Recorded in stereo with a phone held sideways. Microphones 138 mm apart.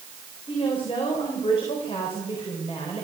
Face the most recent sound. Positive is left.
turn(degrees=45)  # may be behind; listen again after turning